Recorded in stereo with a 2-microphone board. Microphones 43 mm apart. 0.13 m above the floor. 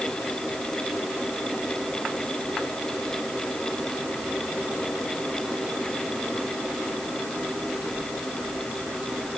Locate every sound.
Only background noise.